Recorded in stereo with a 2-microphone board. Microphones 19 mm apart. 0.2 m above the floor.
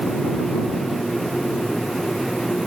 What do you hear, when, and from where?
Only background noise.